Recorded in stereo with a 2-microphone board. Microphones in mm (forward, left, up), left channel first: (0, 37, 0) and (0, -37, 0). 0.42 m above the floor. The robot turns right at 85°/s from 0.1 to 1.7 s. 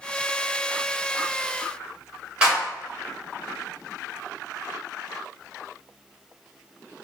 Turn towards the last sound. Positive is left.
turn(degrees=-15)  # may be behind; listen again after turning